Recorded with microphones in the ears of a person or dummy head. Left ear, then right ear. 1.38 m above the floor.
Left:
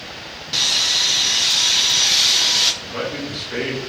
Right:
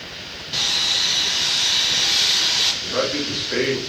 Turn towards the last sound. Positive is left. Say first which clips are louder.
# right 4 dB
turn(degrees=-25)  # may be behind; listen again after turning